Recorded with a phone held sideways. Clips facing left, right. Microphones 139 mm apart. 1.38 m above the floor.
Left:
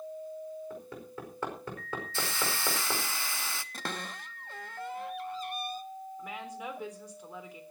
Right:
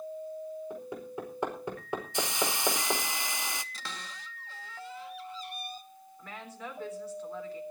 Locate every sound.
0.7 s hammering: 20° right (ahead or behind), 5 m
2.1 s a hiss: 20° right (ahead or behind), 0.7 m
3.7 s a cupboard door: 55° left (ahead or behind), 0.9 m
6.2 s a woman speaking: 15° left (ahead or behind), 4 m